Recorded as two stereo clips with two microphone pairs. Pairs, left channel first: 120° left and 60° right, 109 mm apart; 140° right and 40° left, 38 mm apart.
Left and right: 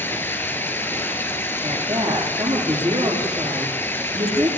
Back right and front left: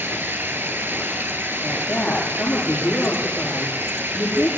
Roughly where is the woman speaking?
Right.